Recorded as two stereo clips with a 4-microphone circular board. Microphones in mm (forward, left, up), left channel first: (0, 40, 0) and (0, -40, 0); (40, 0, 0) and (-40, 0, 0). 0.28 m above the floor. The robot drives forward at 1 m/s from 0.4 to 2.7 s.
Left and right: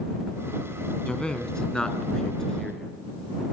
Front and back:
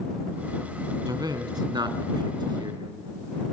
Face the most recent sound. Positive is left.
turn(degrees=175)